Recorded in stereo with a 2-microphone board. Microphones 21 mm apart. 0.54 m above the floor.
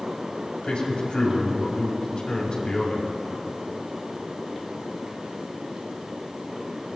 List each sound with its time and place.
0.6 s a man speaking: 60° left (ahead or behind), 3.5 m